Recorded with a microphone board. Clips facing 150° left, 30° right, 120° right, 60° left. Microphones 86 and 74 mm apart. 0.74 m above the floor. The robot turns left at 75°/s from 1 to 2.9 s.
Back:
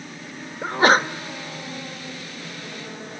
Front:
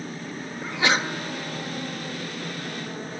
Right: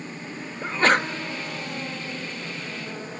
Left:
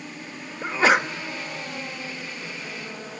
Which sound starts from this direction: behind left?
A sneeze, at 0.6 s.